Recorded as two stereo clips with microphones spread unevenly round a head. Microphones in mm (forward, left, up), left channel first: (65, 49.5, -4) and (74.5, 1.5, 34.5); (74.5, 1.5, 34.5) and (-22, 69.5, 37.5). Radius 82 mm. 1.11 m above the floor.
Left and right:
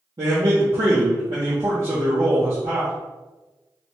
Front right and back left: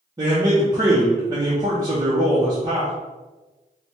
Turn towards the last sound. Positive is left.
turn(degrees=-155)